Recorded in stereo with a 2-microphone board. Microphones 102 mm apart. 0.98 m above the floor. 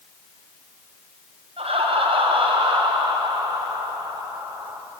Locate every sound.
1.6 s laughter: 75° right (ahead or behind), 6 m; by 4.8 s 35° right (ahead or behind), 6 m